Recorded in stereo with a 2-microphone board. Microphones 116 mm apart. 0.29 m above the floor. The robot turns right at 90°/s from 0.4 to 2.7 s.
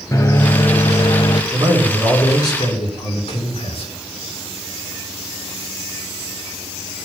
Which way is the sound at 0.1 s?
35° left.